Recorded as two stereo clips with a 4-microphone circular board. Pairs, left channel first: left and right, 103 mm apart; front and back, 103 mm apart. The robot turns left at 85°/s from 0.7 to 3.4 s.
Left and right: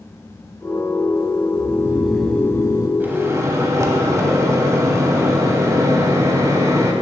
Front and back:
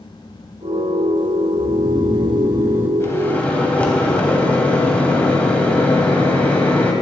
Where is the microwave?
30° right, 1.0 m; by 6.9 s 65° right, 1.0 m.